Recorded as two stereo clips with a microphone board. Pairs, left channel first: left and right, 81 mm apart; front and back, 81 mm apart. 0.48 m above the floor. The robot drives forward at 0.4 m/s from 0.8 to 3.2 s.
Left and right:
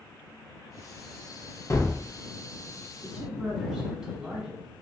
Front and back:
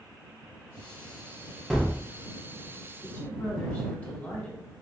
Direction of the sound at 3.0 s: 25° right.